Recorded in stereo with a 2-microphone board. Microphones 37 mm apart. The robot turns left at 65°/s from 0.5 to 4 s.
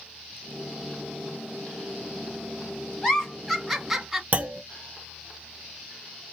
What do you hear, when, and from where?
3.0 s a giggle: 15° left (ahead or behind), 1.1 m; by 4.2 s 10° right (ahead or behind), 1.1 m
4.3 s a clunk: 45° right (ahead or behind), 0.5 m